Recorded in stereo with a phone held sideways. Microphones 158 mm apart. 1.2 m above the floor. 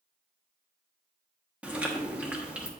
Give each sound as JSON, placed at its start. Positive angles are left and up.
{"t": 1.6, "sound": "chewing", "side_deg": -10, "distance_m": 1.3}